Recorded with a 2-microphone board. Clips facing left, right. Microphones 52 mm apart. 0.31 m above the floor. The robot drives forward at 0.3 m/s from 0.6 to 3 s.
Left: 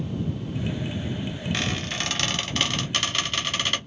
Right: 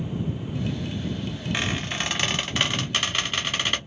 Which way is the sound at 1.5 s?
15° right (ahead or behind).